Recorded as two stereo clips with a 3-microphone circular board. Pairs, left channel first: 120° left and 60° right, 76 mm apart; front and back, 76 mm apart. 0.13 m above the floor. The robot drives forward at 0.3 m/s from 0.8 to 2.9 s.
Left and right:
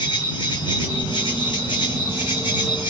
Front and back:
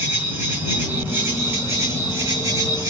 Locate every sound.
0.0 s an insect: 115° left, 1.2 m; by 2.9 s 135° left, 1.6 m